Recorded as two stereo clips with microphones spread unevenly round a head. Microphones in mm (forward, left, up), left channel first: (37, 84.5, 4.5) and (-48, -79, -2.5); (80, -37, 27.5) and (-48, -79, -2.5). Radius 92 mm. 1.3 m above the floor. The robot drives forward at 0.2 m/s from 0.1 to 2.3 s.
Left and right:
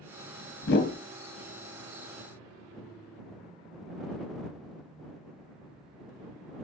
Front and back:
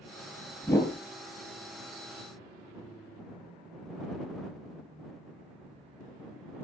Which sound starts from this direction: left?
A whoosh, at 0.6 s.